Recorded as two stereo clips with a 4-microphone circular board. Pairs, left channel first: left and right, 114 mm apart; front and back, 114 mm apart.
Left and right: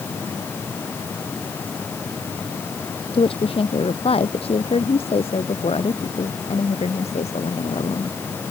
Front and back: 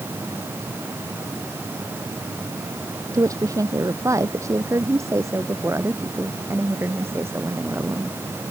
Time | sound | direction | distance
3.1 | a woman speaking | 125° left | ?